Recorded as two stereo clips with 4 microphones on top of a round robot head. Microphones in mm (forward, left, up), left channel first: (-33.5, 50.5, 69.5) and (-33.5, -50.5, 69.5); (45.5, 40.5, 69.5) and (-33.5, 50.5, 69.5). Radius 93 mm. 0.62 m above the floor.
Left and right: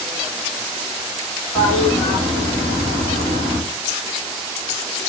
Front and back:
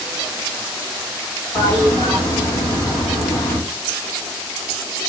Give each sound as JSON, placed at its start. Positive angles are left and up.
{"t": 1.6, "sound": "a toilet flushing", "azimuth_deg": 15, "distance_m": 1.7}